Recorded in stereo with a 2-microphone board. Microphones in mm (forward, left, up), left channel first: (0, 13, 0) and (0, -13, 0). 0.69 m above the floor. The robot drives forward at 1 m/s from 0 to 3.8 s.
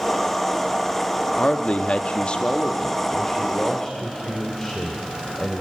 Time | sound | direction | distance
1.4 | a man speaking | 40° left (ahead or behind) | 1.0 m